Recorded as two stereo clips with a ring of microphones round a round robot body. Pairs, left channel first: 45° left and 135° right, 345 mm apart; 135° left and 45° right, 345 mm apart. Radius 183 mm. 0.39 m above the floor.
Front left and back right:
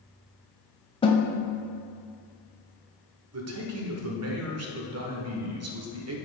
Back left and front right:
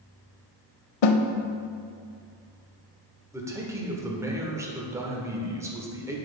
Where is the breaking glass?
No breaking glass in this recording.